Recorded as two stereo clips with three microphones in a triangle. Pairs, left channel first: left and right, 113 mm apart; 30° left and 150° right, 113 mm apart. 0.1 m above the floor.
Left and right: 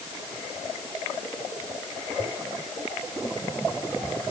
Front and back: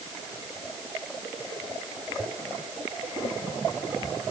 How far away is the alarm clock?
No alarm clock in this recording.